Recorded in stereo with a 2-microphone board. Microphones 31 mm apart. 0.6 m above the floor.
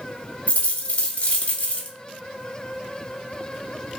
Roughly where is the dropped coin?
Left.